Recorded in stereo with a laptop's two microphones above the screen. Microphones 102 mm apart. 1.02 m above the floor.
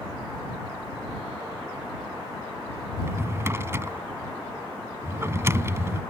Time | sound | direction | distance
3.0 | a drawer | 25° right (ahead or behind) | ?